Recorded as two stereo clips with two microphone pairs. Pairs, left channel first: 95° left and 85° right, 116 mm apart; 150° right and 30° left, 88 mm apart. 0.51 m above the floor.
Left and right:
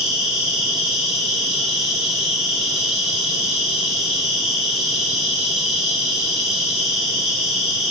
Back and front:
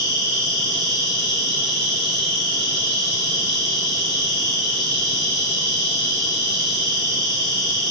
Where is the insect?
170° right, 1.6 m.